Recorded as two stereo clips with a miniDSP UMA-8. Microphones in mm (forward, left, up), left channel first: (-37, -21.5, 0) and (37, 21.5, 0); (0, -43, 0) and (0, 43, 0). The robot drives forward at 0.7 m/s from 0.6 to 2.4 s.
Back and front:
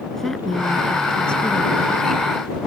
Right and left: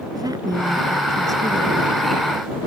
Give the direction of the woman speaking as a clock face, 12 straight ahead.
8 o'clock.